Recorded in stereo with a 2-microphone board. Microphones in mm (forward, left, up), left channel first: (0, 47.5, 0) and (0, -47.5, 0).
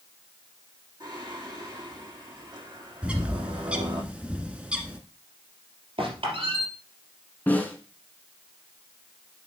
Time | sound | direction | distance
1.0 | singing | 45° right (ahead or behind) | 6 m
3.0 | a bird | 10° right (ahead or behind) | 1.6 m
6.0 | a squeak | 75° right (ahead or behind) | 3.5 m
7.5 | a snare drum | 20° left (ahead or behind) | 2.5 m